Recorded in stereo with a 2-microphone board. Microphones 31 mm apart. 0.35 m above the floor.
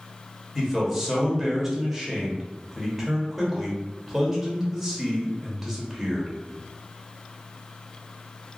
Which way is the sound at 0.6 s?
10° right (ahead or behind).